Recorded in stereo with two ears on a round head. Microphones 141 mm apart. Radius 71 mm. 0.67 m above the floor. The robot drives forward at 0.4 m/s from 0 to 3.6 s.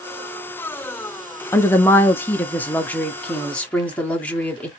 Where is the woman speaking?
15° left (ahead or behind), 0.5 m; by 4.7 s 10° left (ahead or behind), 1.1 m.